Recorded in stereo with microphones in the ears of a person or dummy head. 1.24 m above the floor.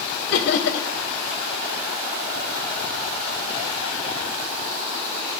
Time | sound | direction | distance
0.3 | laughter | 60° left (ahead or behind) | 1.6 m